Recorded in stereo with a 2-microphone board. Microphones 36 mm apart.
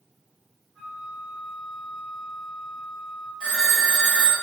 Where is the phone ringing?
30° right (ahead or behind), 1.6 m.